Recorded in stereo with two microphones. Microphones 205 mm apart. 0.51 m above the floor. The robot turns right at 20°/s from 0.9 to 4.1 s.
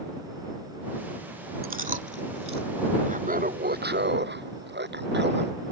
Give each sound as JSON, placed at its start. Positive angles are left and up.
{"t": 1.6, "sound": "chewing", "side_deg": -45}
{"t": 3.1, "sound": "laughter", "side_deg": -35}